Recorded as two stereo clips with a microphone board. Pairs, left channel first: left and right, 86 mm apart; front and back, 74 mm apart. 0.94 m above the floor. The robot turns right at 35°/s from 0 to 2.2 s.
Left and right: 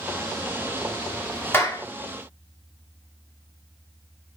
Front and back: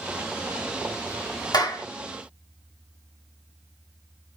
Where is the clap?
30° left, 1.7 m; by 1.9 s 40° left, 1.7 m.